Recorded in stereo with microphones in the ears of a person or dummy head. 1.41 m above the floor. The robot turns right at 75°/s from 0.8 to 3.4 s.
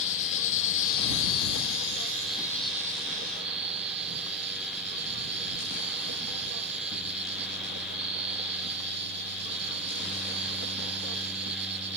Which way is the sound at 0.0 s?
45° left.